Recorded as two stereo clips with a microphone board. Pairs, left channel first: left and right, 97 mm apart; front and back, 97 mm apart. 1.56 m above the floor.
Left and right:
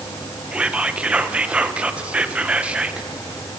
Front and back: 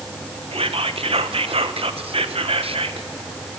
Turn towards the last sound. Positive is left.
turn(degrees=-170)